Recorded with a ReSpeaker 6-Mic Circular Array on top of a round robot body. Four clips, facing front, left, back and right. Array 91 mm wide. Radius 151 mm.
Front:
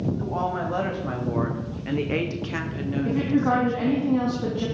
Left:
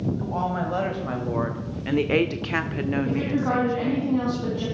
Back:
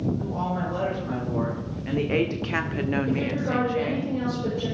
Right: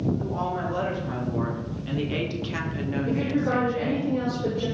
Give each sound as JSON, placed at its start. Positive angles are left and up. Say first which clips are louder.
{"t": 0.2, "sound": "a woman speaking", "louder": "left 2 dB, front 2 dB", "azimuth_deg": 50, "distance_m": 3.5}
{"t": 3.0, "sound": "a woman speaking", "louder": "left 1 dB, front 4 dB", "azimuth_deg": 30, "distance_m": 4.0}